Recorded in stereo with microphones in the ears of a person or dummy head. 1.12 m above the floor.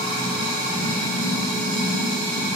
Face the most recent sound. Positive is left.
turn(degrees=-40)  # may be behind; listen again after turning